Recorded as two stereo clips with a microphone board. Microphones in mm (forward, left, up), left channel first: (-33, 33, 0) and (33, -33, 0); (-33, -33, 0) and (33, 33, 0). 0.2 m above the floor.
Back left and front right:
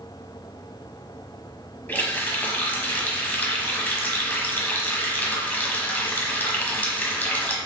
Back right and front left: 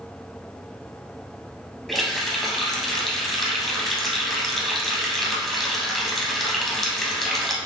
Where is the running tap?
140° left, 0.7 m.